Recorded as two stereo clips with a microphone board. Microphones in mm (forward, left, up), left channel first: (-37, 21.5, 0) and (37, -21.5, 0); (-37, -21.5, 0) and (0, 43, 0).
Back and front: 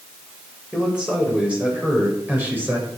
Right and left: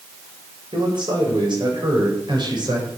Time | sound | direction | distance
0.7 | a man speaking | 50° left | 8.5 m